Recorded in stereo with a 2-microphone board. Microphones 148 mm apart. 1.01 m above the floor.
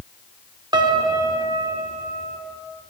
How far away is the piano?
About 1.2 m.